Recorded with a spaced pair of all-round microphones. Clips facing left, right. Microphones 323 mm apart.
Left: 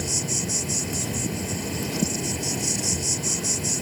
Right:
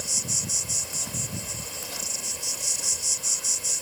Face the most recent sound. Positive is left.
turn(degrees=75)  # may be behind; listen again after turning